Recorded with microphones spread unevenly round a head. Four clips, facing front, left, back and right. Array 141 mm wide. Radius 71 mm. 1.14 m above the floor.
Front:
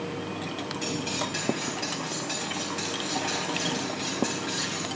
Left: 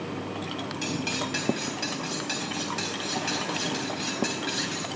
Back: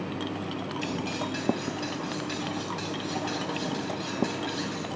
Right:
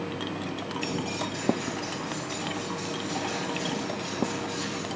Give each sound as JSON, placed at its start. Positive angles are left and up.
{"t": 0.8, "sound": "cutlery clinking", "azimuth_deg": 65, "distance_m": 4.0}